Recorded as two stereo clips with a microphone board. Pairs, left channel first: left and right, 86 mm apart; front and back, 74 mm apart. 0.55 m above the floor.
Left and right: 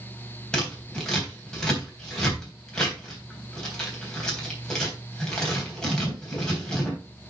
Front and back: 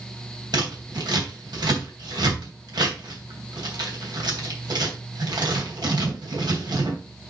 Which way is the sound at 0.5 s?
170° left.